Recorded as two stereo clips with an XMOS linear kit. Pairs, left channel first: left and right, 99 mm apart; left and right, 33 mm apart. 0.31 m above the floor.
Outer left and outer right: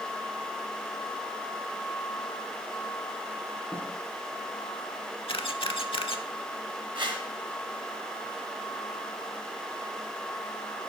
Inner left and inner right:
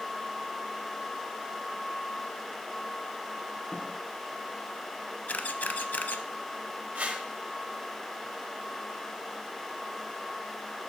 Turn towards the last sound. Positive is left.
turn(degrees=-55)  # may be behind; listen again after turning